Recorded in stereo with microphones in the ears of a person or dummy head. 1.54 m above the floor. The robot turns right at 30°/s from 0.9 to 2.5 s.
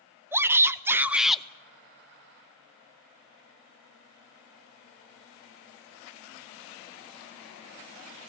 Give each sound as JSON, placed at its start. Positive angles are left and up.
{"t": 0.3, "sound": "a shout", "side_deg": -15, "distance_m": 0.8}